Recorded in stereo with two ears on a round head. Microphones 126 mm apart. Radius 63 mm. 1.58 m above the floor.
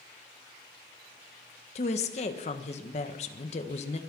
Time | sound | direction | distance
1.8 | a woman speaking | 50° left (ahead or behind) | 1.5 m